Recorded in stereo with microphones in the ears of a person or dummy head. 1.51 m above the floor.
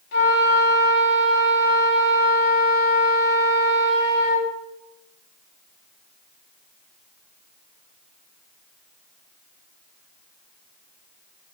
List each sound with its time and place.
0.1 s a flute: 65° left (ahead or behind), 2 m